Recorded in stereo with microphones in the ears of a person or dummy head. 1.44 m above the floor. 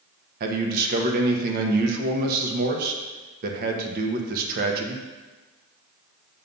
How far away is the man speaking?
About 0.9 m.